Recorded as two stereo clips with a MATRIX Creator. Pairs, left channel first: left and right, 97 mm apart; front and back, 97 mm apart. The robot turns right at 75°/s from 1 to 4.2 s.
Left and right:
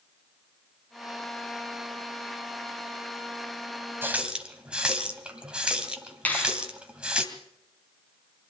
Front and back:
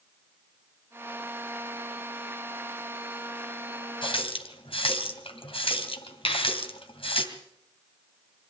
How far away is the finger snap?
About 4 m.